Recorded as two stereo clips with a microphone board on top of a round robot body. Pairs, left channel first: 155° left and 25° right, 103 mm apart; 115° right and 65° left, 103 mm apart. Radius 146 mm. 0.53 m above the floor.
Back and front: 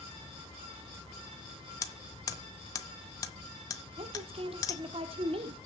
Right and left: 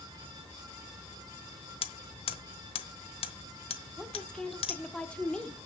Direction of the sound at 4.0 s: 35° right.